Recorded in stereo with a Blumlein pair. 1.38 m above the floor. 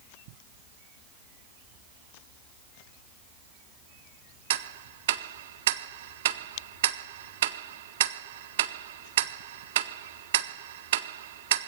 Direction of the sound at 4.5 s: 55° right.